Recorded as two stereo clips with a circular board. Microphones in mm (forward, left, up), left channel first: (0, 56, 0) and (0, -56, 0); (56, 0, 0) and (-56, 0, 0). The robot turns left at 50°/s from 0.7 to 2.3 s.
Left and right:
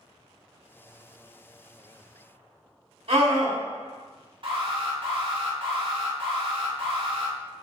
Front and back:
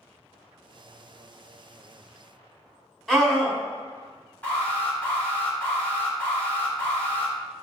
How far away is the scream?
About 1.6 m.